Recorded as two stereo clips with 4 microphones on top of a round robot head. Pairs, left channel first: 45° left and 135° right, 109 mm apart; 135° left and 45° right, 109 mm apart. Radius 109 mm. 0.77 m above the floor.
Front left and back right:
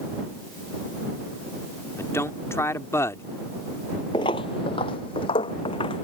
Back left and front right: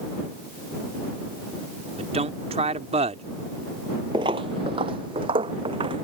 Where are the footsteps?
Straight ahead.